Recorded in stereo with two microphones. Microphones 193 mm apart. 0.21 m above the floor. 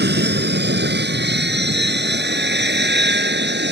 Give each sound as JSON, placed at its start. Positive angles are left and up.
{"t": 0.0, "sound": "an aircraft", "side_deg": -60}